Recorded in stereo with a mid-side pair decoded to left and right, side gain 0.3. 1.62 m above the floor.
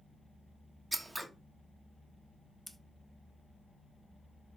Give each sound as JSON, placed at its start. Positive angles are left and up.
{"t": 0.9, "sound": "scissors", "azimuth_deg": -15, "distance_m": 1.3}
{"t": 2.7, "sound": "scissors", "azimuth_deg": -10, "distance_m": 0.7}